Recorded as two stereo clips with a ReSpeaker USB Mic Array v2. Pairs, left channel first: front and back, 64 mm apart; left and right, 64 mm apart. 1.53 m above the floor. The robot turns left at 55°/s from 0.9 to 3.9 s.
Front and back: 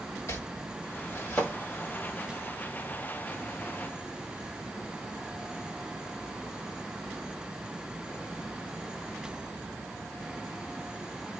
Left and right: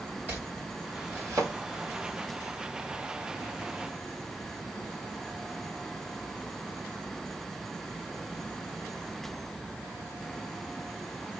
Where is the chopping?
30° right, 2.0 m; by 1.5 s 70° right, 2.0 m.